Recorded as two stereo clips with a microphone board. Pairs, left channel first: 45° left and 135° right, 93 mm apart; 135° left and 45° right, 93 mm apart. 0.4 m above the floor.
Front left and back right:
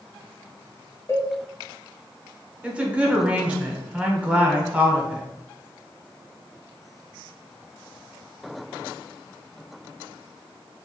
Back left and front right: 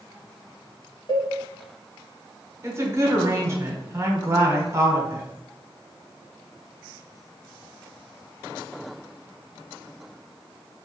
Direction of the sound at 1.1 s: 100° left.